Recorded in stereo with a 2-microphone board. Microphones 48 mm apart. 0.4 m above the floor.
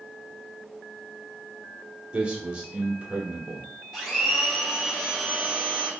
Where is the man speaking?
20° right (ahead or behind), 1.0 m.